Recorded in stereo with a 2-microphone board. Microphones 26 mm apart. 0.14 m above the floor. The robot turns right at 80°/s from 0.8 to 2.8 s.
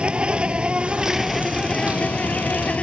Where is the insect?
45° right; by 2.8 s 115° left.